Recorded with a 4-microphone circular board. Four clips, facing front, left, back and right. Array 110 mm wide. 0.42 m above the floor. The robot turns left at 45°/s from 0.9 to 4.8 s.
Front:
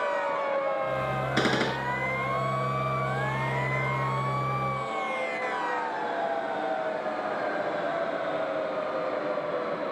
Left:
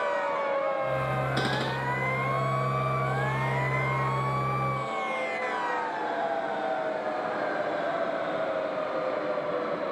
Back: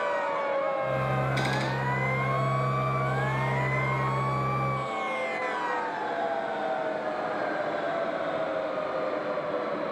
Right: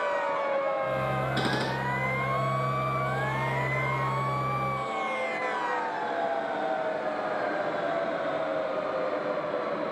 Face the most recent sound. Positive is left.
turn(degrees=-150)